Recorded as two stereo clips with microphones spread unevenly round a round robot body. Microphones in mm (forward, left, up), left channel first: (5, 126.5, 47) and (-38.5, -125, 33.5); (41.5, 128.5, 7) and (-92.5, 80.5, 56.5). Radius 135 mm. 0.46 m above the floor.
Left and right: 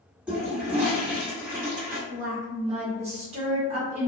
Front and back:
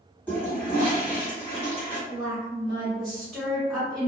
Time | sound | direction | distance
0.3 | a toilet flushing | 20° right | 1.4 m
2.1 | a woman speaking | 50° right | 1.4 m